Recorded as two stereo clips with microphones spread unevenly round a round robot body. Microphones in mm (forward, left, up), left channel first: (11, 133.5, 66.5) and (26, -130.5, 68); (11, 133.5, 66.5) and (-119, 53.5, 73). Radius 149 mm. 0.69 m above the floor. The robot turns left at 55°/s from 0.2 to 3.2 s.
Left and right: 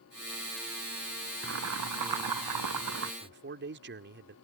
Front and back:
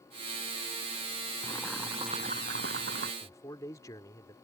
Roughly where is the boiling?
Ahead right.